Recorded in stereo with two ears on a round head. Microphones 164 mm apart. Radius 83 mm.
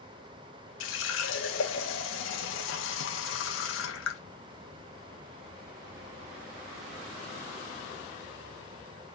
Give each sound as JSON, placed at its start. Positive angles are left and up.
{"t": 0.8, "sound": "a running tap", "side_deg": 75, "distance_m": 1.1}